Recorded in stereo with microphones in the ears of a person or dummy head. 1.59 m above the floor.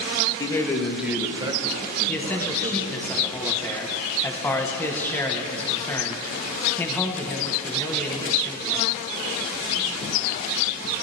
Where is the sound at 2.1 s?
10° left (ahead or behind), 1.4 m.